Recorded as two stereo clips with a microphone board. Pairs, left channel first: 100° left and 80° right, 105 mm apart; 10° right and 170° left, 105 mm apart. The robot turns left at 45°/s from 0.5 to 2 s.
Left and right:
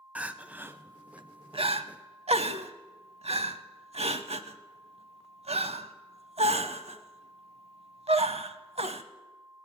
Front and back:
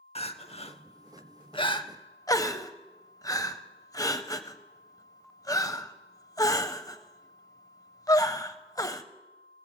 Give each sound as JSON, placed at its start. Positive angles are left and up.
{"t": 0.1, "sound": "crying", "azimuth_deg": 0, "distance_m": 0.6}